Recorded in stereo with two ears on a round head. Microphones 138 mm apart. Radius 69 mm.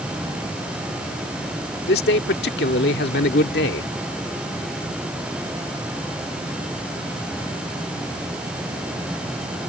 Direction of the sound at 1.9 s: 80° left.